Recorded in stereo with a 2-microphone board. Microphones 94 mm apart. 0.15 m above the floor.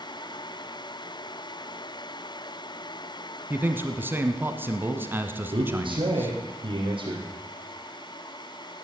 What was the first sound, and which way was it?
A man speaking, 20° right (ahead or behind).